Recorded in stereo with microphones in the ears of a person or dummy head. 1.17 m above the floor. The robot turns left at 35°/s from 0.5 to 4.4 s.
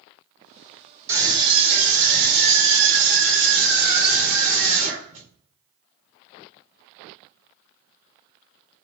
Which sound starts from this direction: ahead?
A scream, at 1.1 s.